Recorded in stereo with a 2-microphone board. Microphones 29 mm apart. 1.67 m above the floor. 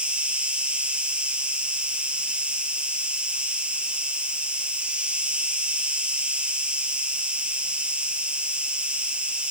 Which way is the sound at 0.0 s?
50° right (ahead or behind).